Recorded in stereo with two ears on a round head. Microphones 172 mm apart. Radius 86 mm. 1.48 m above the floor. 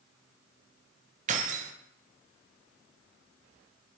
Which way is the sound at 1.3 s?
40° right (ahead or behind).